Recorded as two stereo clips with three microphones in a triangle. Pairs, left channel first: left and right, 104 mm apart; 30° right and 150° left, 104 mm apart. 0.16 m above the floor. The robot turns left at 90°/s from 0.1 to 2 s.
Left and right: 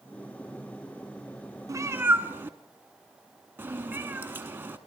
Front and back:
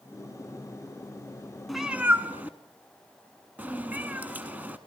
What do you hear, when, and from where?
1.7 s a cat meowing: 120° right, 0.8 m; by 4.8 s 145° right, 0.8 m